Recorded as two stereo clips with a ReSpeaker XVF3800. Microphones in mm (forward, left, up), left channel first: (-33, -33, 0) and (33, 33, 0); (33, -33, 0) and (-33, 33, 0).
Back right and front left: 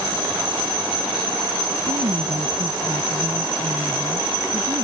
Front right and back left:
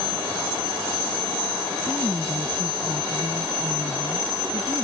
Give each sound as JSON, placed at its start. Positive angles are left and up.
{"t": 1.9, "sound": "a woman speaking", "azimuth_deg": 45}